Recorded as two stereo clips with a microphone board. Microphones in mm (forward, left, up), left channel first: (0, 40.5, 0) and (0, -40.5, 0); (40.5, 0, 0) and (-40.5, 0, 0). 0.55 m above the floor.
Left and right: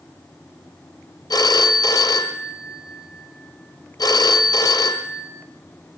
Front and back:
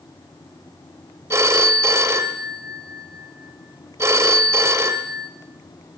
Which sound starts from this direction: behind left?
A phone ringing, at 1.3 s.